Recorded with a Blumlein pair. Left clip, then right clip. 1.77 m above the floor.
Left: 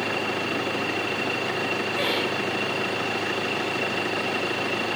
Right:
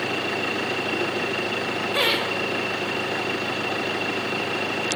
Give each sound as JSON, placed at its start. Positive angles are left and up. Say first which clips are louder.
{"t": 1.9, "sound": "laughter", "louder": "right 5 dB", "azimuth_deg": -55, "distance_m": 1.7}